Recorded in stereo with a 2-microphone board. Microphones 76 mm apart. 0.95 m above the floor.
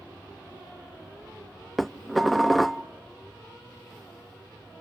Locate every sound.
1.8 s dishes clattering: centre (ahead or behind), 0.5 m